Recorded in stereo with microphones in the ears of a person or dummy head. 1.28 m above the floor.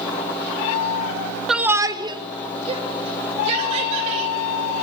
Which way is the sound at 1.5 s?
Centre (ahead or behind).